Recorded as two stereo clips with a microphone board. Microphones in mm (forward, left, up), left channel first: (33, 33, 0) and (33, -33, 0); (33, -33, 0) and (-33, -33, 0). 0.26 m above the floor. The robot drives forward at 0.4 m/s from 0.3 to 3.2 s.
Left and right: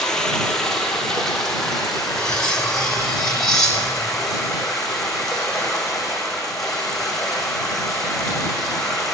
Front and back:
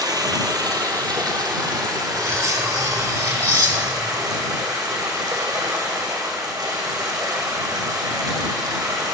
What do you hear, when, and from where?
0.0 s running water: 170° left, 1.0 m; by 9.1 s 175° left, 2 m
2.1 s cutlery clinking: 165° left, 1.0 m; by 4.2 s 170° left, 1.3 m